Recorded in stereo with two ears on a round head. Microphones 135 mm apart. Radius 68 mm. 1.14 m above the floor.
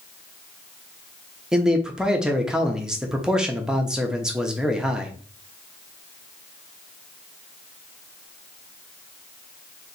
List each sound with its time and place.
1.5 s a man speaking: 5° right (ahead or behind), 0.6 m